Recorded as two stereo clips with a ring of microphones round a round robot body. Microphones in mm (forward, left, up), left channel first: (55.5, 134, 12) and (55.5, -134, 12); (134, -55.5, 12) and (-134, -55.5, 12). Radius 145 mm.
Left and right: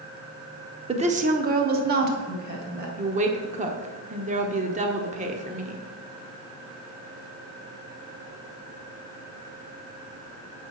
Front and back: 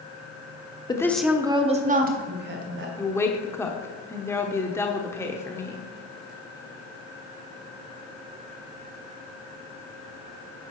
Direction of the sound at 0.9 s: 55° right.